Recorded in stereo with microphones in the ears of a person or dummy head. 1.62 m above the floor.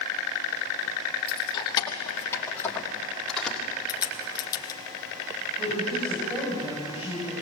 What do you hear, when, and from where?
1.3 s keys jangling: 30° left (ahead or behind), 1.8 m; by 3.6 s centre (ahead or behind), 2.5 m
3.9 s a crack: 20° left (ahead or behind), 1.3 m
5.6 s a woman speaking: 25° right (ahead or behind), 7 m